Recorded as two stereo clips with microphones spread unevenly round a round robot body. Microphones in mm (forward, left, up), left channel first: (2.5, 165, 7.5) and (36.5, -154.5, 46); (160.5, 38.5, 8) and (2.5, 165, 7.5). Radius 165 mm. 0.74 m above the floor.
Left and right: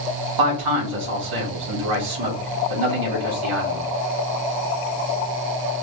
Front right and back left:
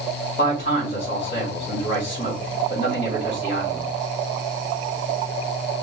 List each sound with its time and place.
0.4 s a man speaking: 110° right, 1.9 m